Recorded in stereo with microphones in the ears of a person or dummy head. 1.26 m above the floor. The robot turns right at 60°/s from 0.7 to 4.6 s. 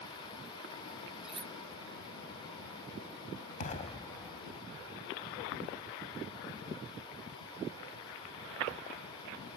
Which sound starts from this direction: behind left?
An explosion, at 3.6 s.